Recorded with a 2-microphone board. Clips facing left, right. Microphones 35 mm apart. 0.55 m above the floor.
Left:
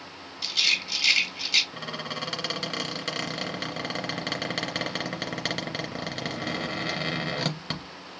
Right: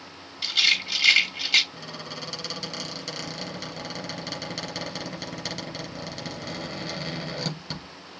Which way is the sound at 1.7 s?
65° left (ahead or behind).